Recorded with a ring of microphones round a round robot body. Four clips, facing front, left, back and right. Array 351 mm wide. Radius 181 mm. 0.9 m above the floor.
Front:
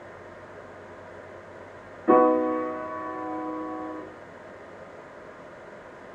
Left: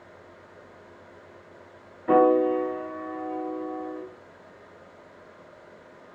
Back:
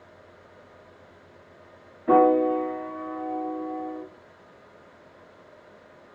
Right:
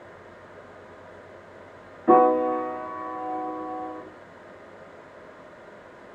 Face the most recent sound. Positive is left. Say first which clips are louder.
# right 1 dB, back 1 dB
turn(degrees=-85)